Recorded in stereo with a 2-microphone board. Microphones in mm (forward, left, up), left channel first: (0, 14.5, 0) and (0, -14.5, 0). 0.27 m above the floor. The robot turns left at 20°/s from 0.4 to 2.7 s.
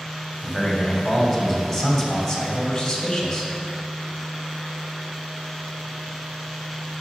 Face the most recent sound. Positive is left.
turn(degrees=150)